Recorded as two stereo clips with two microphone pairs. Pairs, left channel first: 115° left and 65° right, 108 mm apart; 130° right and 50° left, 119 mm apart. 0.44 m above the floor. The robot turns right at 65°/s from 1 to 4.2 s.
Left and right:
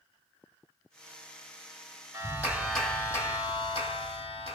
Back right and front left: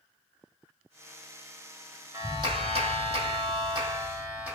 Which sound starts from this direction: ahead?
A clap, at 2.1 s.